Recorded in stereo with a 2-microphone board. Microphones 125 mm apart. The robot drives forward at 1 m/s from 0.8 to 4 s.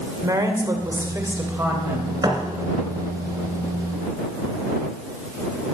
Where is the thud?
30° right (ahead or behind), 1.7 m.